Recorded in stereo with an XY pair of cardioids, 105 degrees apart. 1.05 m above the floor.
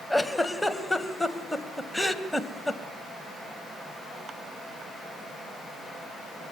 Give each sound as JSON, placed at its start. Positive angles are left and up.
{"t": 0.1, "sound": "a giggle", "azimuth_deg": 5, "distance_m": 2.0}